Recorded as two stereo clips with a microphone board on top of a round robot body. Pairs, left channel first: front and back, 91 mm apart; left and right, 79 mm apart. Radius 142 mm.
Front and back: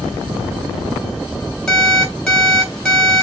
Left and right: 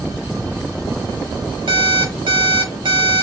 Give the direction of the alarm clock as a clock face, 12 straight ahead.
3 o'clock.